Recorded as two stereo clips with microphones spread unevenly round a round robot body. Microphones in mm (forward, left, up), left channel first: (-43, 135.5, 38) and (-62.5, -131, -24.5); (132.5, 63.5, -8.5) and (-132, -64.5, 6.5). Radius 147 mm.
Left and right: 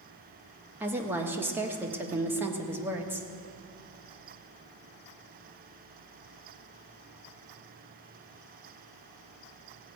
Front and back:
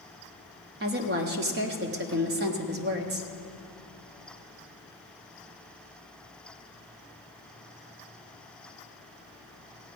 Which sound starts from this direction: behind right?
A woman speaking, at 0.8 s.